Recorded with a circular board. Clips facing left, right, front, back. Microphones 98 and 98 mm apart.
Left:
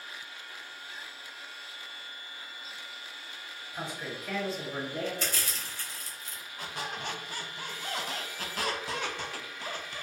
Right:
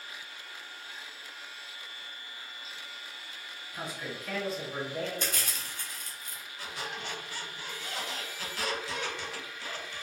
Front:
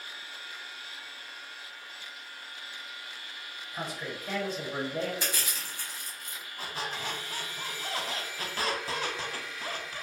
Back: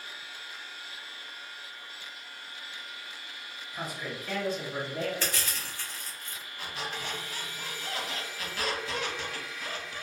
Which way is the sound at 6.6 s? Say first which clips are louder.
Left 2 dB, front 1 dB; 50° left.